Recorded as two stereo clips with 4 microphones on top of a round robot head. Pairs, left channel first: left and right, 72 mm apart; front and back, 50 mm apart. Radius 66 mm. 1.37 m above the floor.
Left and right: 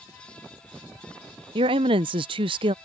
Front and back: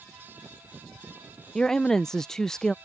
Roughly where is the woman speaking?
Right.